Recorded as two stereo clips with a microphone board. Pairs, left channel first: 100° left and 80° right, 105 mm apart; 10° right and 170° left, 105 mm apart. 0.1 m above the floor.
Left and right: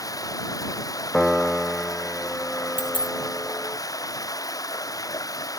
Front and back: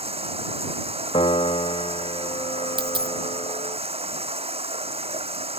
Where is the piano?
20° left.